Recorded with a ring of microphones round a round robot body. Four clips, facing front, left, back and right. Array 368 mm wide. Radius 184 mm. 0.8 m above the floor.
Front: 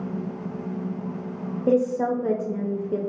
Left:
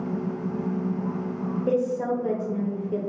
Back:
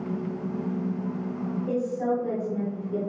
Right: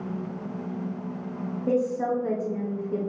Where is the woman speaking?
15° left, 0.8 m.